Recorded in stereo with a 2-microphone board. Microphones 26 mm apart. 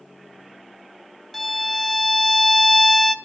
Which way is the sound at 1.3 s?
5° left (ahead or behind).